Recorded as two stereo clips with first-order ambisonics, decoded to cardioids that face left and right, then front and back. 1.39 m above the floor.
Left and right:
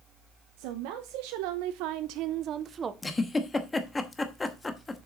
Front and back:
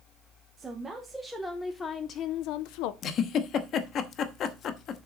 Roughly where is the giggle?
Ahead.